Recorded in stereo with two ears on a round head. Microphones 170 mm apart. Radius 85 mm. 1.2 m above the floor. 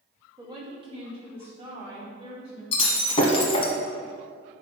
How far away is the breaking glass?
About 1.6 m.